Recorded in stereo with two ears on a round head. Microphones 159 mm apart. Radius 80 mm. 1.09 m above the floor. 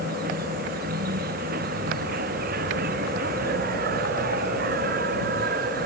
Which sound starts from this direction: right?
An insect, at 0.0 s.